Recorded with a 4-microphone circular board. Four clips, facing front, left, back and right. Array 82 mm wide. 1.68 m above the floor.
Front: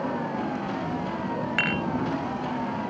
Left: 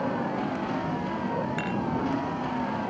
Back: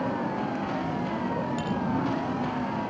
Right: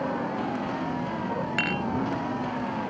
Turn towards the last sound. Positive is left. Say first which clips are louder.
# right 1 dB, front 2 dB
turn(degrees=-20)